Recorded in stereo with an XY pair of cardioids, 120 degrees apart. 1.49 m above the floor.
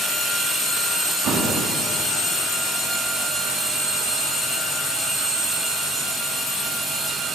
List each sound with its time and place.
1.2 s an explosion: 65° right, 2.5 m